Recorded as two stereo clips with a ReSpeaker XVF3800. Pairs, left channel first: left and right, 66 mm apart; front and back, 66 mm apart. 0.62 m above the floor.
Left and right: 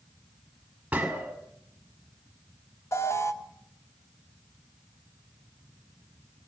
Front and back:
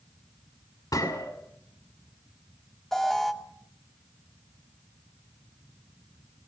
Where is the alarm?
85° left, 2.0 m.